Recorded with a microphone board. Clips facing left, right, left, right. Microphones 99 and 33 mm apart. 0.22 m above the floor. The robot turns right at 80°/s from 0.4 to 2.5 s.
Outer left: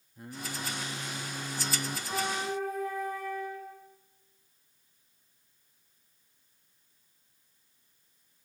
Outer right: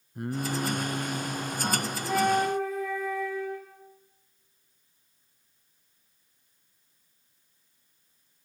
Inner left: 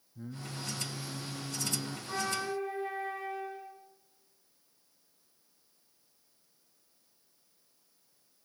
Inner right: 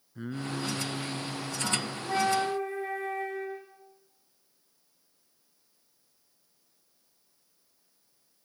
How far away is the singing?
About 0.9 m.